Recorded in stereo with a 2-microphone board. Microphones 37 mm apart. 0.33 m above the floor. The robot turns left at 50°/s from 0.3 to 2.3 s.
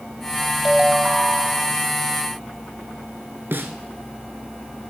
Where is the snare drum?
65° right (ahead or behind), 1.1 m.